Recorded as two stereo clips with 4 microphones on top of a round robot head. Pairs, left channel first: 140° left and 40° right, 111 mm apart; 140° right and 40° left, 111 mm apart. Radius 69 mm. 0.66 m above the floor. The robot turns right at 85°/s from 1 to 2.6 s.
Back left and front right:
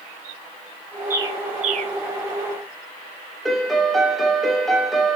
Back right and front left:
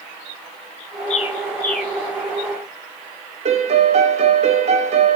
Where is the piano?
50° left, 2 m.